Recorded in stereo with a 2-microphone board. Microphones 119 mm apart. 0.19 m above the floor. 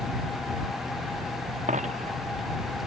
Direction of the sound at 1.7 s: 85° right.